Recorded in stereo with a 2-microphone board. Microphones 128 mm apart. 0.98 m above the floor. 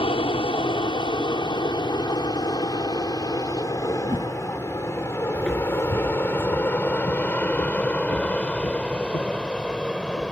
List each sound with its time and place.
0.0 s an aircraft: 45° left (ahead or behind); by 10.3 s 5° left (ahead or behind)
4.0 s a whoosh: 45° right (ahead or behind)
5.3 s footsteps: 15° right (ahead or behind); by 10.3 s 70° left (ahead or behind)